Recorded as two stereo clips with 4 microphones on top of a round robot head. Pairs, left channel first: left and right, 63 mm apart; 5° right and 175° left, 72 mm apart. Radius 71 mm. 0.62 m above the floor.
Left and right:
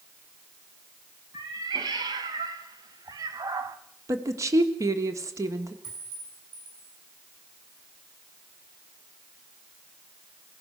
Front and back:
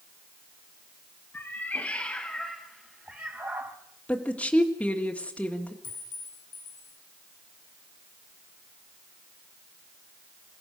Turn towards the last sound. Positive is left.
turn(degrees=-20)